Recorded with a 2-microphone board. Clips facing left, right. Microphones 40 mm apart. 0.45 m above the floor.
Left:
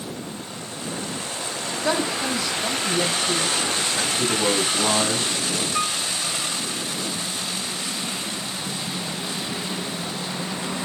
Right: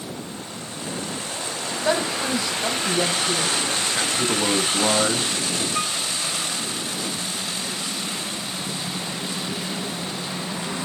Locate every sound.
1.7 s a woman speaking: 15° right (ahead or behind), 1.9 m
4.0 s a man speaking: 35° right (ahead or behind), 1.3 m
5.7 s a piano: 15° left (ahead or behind), 1.4 m